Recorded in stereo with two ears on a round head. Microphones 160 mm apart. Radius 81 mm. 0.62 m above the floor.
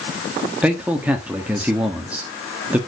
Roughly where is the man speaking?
Centre.